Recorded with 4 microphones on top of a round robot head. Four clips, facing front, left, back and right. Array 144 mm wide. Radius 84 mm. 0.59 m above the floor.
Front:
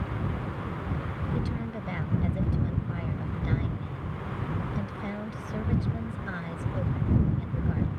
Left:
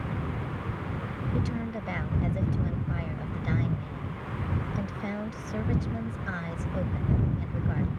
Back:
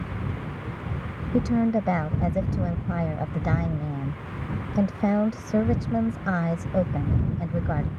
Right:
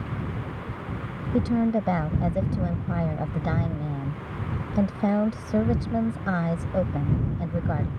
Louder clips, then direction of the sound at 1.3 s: Right 12 dB, back 15 dB; 140° right.